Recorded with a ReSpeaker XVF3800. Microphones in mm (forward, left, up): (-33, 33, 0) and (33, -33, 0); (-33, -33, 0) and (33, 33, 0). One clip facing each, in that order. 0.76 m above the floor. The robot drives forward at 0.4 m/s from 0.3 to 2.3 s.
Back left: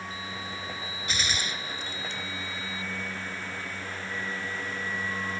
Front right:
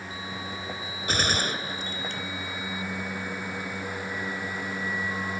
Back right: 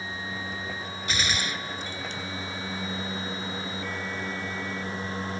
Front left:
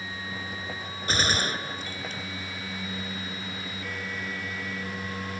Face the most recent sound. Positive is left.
turn(degrees=-5)